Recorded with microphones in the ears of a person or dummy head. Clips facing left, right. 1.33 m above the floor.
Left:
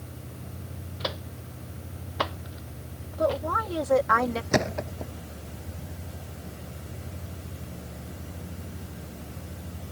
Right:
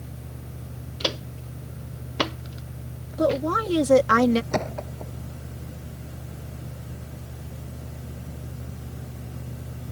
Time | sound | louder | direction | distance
1.0 | footsteps | right 5 dB | 40° right (ahead or behind) | ?
3.2 | a woman speaking | right 4 dB | 40° right (ahead or behind) | ?
4.5 | a thud | left 2 dB | 20° left (ahead or behind) | ?